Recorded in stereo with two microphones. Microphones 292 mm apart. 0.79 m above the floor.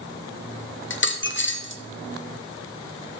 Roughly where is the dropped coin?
Left.